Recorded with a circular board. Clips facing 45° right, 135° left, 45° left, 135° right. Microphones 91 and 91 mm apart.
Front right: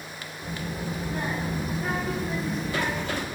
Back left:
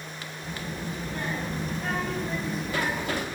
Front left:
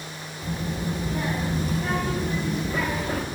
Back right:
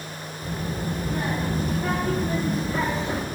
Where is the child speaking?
115° right, 1.7 m; by 3.2 s straight behind, 0.7 m.